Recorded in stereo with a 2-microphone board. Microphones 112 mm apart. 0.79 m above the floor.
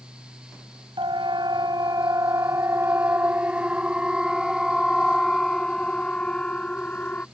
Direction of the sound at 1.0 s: 50° right (ahead or behind).